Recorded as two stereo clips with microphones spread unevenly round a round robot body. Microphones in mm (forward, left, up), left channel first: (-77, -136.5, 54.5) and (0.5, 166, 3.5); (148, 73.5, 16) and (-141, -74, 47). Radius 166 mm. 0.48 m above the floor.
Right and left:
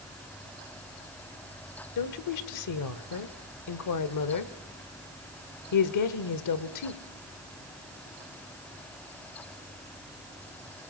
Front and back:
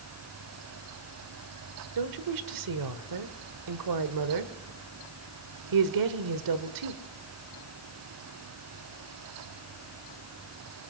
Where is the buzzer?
I don't hear a buzzer.